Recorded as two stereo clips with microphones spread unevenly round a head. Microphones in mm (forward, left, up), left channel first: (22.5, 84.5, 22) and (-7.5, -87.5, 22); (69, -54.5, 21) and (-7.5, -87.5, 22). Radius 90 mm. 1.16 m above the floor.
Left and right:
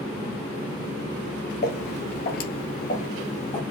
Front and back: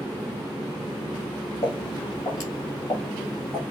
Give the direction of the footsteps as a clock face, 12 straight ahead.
10 o'clock.